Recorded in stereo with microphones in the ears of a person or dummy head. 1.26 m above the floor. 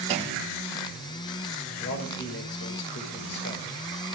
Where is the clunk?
35° right (ahead or behind), 6 m.